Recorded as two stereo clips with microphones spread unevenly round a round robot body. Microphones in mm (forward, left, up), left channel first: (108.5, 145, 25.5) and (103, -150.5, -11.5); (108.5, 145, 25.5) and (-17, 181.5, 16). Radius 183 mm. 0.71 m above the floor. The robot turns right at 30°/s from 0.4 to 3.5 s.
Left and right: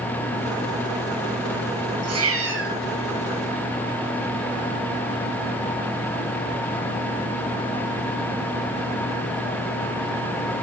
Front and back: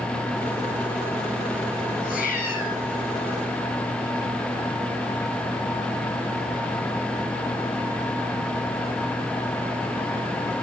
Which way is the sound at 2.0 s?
55° right.